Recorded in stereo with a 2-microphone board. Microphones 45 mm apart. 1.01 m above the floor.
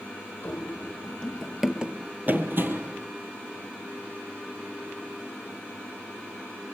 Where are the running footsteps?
35° left (ahead or behind), 2 m; by 3.0 s 60° right (ahead or behind), 2 m.